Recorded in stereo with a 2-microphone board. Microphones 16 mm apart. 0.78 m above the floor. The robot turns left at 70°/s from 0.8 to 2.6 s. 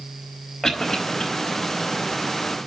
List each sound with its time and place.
0.6 s a cough: 30° left (ahead or behind), 3.5 m; by 1.2 s 60° left (ahead or behind), 3.5 m